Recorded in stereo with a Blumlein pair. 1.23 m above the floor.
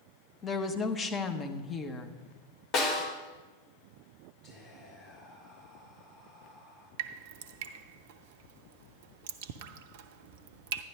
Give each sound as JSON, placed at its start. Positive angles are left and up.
{"t": 0.4, "sound": "a woman speaking", "azimuth_deg": 20, "distance_m": 1.1}
{"t": 2.7, "sound": "a snare drum", "azimuth_deg": 30, "distance_m": 2.5}
{"t": 4.4, "sound": "whispering", "azimuth_deg": 35, "distance_m": 6.0}
{"t": 7.0, "sound": "dripping", "azimuth_deg": -50, "distance_m": 0.6}